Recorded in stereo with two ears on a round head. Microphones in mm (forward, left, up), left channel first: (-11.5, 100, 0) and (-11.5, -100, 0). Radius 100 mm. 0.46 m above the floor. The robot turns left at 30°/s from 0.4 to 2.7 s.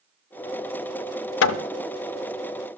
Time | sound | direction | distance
1.4 | hammering | 55° left (ahead or behind) | 0.5 m